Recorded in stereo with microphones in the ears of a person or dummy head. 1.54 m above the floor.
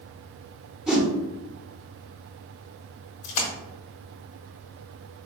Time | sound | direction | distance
0.9 | a whoosh | 5° right (ahead or behind) | 0.7 m
3.2 | a splash | 45° left (ahead or behind) | 1.0 m